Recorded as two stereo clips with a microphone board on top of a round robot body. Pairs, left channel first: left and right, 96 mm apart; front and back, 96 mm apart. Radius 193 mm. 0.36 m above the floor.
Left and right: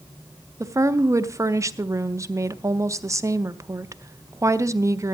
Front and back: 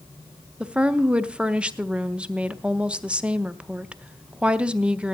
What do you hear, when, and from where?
0.6 s a woman speaking: 110° right, 0.9 m